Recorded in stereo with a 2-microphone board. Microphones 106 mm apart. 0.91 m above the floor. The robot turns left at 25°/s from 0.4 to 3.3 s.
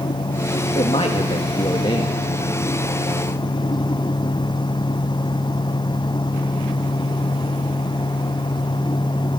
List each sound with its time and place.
0.8 s a man speaking: 60° left (ahead or behind), 1.5 m; by 3.0 s 25° left (ahead or behind), 1.5 m